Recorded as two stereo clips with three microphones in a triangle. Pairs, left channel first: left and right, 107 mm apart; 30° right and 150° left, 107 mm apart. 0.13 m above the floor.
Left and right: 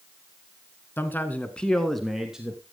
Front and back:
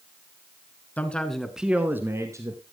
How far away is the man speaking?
About 1.8 m.